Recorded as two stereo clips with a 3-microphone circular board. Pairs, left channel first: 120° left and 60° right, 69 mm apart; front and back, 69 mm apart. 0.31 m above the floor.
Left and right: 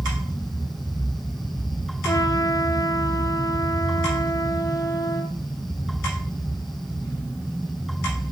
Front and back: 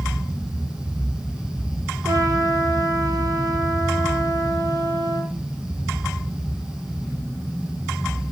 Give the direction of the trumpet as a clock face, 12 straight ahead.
7 o'clock.